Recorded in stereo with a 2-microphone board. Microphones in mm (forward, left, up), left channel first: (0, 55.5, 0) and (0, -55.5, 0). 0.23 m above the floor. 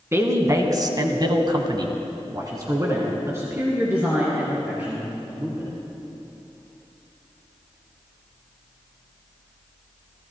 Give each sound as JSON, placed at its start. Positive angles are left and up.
{"t": 0.1, "sound": "a woman speaking", "side_deg": -25, "distance_m": 1.9}